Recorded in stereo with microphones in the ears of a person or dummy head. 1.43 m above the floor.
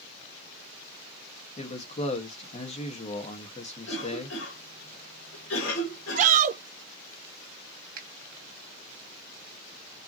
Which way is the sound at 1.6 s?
35° left (ahead or behind).